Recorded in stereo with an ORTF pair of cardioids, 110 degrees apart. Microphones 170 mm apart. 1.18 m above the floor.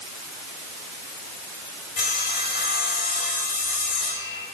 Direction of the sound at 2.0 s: 55° left.